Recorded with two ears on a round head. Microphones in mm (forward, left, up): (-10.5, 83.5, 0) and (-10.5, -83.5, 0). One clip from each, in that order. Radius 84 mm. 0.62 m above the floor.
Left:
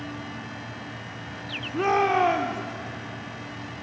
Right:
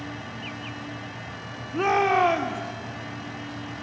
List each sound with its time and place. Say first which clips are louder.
1.7 s a shout: right 1 dB; 15° right (ahead or behind), 1.6 m